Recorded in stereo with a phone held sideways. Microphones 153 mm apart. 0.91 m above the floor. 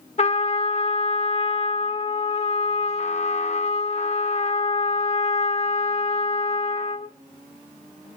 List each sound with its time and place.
0.2 s a trumpet: 45° left (ahead or behind), 0.7 m